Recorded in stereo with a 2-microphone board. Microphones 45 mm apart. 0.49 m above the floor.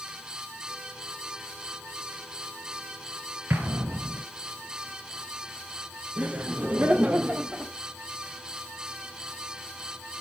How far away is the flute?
I don't hear a flute.